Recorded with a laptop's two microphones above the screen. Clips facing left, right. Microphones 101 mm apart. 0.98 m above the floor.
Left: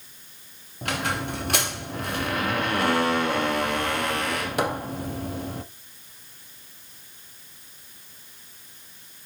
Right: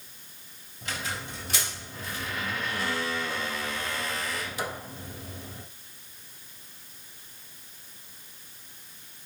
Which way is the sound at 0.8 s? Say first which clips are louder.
Left 8 dB; 65° left (ahead or behind).